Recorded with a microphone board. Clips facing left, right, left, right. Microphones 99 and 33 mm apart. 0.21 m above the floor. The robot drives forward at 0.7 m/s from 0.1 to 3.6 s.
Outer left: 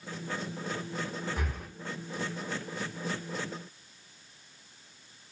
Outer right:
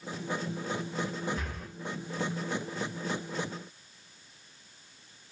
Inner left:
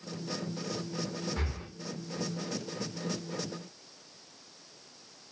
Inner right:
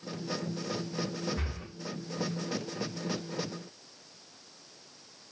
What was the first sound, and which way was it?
Breathing, 55° left (ahead or behind).